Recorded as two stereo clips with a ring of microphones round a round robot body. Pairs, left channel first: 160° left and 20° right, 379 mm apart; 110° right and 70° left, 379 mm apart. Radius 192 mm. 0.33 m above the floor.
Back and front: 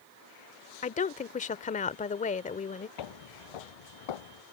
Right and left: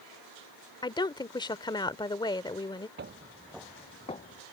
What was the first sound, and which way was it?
A woman speaking, 170° right.